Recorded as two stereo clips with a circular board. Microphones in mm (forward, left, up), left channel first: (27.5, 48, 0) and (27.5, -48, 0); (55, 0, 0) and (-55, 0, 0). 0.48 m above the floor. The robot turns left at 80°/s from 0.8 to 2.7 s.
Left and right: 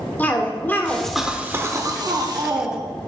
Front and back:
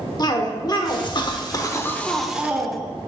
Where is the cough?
25° left, 1.0 m; by 2.9 s 125° right, 1.0 m.